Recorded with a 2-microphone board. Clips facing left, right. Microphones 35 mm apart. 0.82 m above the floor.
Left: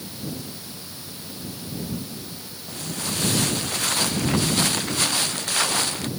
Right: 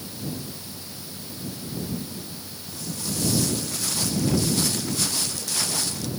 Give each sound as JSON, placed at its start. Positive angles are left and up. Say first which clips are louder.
{"t": 2.7, "sound": "footsteps", "louder": "left 3 dB", "side_deg": 55}